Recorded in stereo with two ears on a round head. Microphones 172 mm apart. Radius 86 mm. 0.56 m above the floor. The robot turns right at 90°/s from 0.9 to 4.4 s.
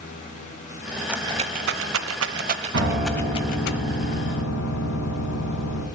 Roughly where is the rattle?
Centre.